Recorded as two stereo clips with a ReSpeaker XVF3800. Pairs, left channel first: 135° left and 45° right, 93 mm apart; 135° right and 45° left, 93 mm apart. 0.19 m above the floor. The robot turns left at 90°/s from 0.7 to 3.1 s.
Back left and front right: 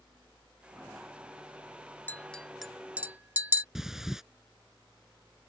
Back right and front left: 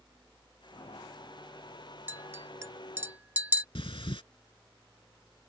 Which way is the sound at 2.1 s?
90° left.